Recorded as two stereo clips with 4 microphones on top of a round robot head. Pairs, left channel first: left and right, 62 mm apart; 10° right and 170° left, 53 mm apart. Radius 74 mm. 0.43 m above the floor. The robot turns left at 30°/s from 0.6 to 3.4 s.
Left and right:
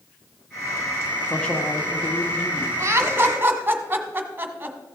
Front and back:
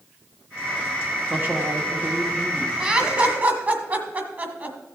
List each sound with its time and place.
1.3 s a man speaking: 155° left, 1.4 m; by 2.7 s 110° left, 1.4 m
2.8 s laughter: 130° right, 1.6 m; by 4.8 s 145° right, 1.6 m